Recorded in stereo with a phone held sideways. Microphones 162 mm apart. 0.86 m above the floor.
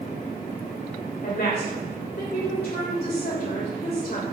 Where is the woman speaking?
80° left, 3 m.